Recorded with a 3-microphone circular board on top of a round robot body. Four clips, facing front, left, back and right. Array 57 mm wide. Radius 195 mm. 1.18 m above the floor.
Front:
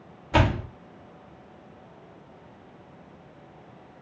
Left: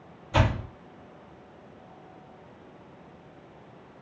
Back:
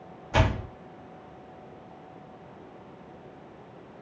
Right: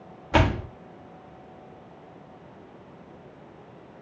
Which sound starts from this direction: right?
A door slam, at 0.3 s.